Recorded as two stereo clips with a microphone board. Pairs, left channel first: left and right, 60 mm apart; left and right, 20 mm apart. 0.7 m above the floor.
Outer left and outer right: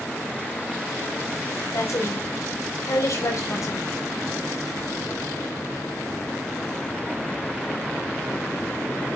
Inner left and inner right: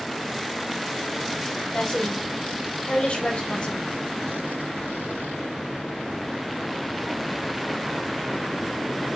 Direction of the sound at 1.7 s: 65° left (ahead or behind).